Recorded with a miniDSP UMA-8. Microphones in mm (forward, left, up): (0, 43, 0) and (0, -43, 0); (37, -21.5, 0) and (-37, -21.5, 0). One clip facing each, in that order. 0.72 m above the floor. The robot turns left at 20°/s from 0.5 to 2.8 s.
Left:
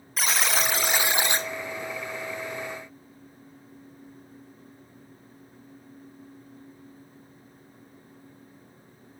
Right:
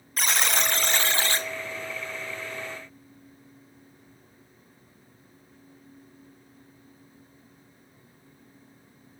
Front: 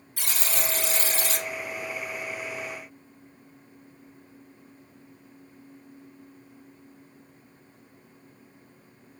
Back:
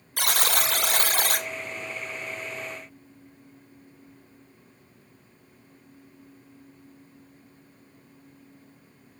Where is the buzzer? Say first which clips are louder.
Even, back 6 dB; straight behind, 0.5 m; by 1.5 s 160° left, 0.5 m.